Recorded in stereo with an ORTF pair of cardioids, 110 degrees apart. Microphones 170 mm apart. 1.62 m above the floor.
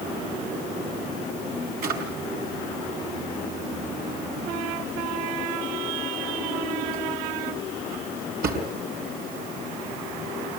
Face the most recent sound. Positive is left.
turn(degrees=-60)